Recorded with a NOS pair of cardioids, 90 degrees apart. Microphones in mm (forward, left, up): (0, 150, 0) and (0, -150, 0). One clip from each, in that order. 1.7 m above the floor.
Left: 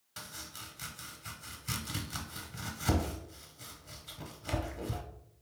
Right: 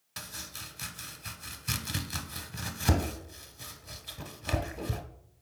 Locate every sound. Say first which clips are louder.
0.2 s chopping: right 4 dB; 25° right, 0.6 m